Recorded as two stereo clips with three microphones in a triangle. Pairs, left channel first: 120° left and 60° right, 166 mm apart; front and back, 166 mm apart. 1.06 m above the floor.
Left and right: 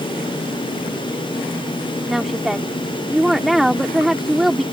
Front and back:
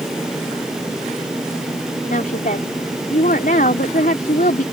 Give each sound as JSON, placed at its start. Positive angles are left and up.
{"t": 2.1, "sound": "a woman speaking", "azimuth_deg": 30}